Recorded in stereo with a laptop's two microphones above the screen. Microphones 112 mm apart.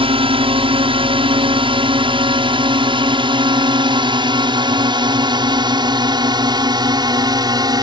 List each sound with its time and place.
0.0 s a drone: 50° right (ahead or behind); by 7.8 s 35° right (ahead or behind)